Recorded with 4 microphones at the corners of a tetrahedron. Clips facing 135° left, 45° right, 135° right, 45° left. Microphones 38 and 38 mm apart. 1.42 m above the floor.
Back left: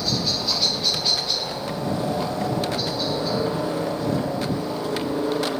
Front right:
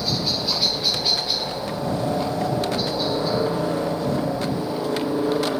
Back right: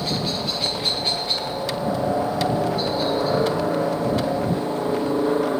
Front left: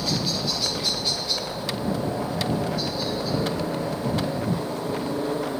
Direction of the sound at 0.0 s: 120° right.